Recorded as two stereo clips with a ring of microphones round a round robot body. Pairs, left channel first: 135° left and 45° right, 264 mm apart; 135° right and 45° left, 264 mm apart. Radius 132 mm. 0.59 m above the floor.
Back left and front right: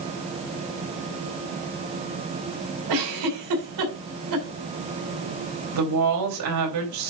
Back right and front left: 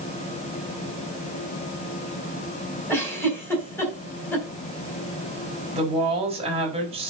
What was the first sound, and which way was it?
A giggle, 55° right.